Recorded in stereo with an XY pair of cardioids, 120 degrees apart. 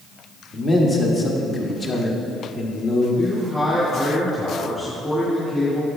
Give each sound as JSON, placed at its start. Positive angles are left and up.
{"t": 0.5, "sound": "a man speaking", "azimuth_deg": 30, "distance_m": 1.7}
{"t": 3.2, "sound": "a man speaking", "azimuth_deg": 15, "distance_m": 2.5}